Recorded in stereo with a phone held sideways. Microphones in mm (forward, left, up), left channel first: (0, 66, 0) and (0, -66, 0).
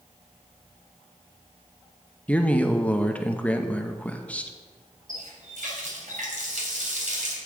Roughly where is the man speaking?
Centre.